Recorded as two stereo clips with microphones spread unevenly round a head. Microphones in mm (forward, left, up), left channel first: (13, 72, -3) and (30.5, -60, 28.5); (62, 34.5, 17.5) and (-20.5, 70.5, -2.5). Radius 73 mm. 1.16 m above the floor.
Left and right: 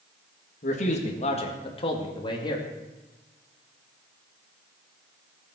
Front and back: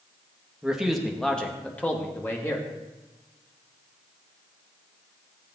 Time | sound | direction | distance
0.6 | a man speaking | 75° left | 1.9 m